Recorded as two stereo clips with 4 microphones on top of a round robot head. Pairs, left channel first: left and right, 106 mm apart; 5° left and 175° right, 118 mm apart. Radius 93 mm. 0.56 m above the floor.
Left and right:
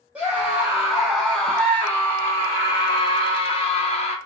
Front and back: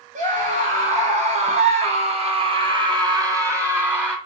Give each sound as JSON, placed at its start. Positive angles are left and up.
{"t": 0.1, "sound": "a scream", "azimuth_deg": -170, "distance_m": 2.0}